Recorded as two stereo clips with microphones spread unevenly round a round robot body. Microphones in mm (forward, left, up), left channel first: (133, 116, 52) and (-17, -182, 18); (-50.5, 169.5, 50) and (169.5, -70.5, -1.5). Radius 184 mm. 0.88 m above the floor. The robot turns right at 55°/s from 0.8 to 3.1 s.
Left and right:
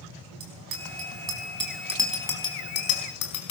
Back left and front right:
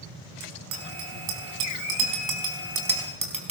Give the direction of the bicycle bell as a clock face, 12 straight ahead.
3 o'clock.